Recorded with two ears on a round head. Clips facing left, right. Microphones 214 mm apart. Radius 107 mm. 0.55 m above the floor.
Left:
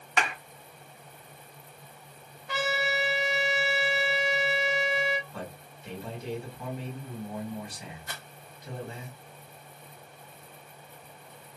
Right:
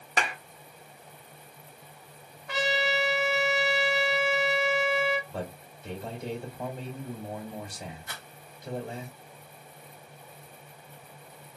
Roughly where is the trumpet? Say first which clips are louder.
Right 2 dB; right.